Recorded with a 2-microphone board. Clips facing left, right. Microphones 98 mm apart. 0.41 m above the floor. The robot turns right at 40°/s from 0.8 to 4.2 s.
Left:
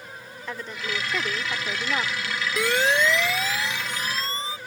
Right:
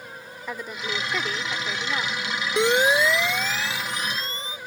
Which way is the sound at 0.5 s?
15° right.